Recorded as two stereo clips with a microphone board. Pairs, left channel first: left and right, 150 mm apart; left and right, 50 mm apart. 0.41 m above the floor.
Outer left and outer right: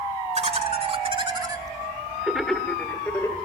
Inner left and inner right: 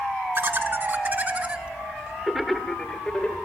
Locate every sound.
0.3 s laughter: 45° right (ahead or behind), 2 m; by 3.4 s 20° left (ahead or behind), 1.9 m